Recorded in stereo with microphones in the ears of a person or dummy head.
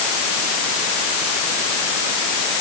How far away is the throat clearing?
I don't hear throat clearing.